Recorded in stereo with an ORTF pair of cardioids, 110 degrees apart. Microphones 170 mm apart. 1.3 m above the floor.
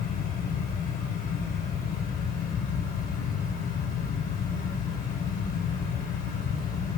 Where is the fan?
65° left, 2.5 m.